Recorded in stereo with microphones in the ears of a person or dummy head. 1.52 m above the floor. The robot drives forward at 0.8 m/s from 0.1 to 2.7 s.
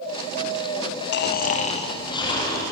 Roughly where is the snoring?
Left.